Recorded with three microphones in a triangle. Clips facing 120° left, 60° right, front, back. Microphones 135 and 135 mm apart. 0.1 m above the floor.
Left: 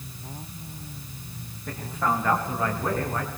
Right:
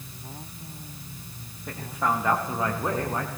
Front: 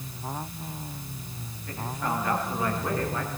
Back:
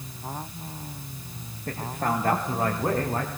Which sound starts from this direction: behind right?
A man speaking, at 1.7 s.